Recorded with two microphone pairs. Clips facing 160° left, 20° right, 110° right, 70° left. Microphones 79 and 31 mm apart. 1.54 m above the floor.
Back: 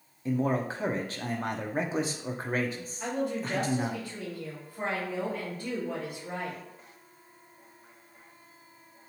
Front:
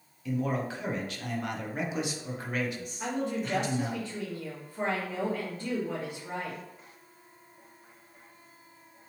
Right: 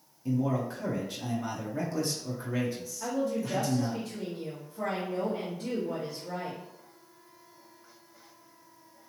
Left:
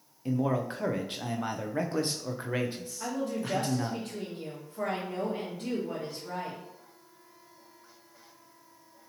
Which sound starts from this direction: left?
A man speaking, at 0.2 s.